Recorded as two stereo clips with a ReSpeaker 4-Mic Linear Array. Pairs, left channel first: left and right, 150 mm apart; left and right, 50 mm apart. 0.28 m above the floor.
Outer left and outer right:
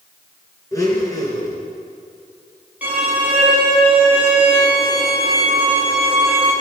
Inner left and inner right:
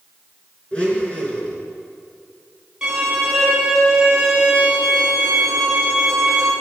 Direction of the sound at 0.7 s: 25° left (ahead or behind).